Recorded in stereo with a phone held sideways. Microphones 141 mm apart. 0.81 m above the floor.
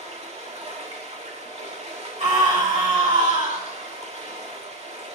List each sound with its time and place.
0.0 s running water: 50° right (ahead or behind), 1.8 m
2.2 s a scream: 55° right (ahead or behind), 3 m